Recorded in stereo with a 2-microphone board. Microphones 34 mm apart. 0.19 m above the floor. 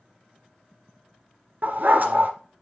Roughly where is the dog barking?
Right.